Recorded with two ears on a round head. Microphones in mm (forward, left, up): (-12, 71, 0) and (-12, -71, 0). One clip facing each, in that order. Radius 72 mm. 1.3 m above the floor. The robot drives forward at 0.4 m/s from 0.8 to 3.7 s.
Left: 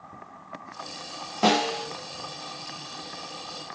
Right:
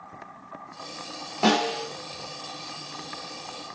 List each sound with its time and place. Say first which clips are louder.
1.4 s a snare drum: even; centre (ahead or behind), 1.6 m